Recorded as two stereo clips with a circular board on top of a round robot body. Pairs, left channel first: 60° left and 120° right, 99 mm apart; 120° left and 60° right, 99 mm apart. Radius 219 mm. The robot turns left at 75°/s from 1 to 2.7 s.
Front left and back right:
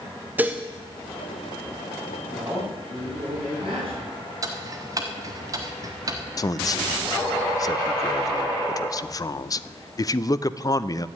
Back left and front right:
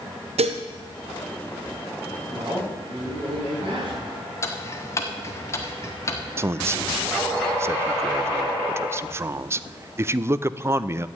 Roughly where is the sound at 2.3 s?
Ahead right.